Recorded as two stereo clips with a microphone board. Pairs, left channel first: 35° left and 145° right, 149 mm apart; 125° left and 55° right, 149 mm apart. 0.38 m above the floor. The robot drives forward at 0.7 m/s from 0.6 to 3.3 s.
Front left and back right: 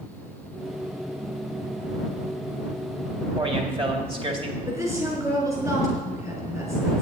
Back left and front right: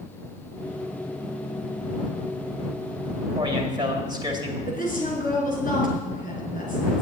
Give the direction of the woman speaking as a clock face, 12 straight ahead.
7 o'clock.